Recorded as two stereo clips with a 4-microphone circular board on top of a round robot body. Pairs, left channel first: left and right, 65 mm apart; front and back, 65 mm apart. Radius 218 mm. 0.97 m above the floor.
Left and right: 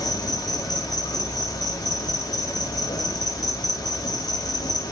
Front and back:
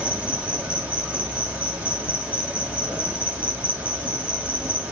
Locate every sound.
0.0 s an insect: 110° left, 5.5 m